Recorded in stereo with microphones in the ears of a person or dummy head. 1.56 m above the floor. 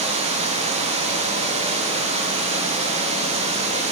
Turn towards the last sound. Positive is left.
turn(degrees=-35)  # may be behind; listen again after turning